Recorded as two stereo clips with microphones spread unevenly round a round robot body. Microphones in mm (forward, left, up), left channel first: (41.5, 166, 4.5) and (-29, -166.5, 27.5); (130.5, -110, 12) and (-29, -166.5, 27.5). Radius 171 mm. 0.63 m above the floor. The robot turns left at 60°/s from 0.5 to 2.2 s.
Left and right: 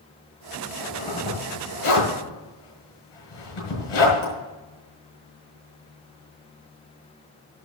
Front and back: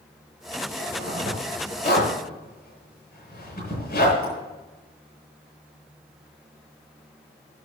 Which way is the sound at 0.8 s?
170° left.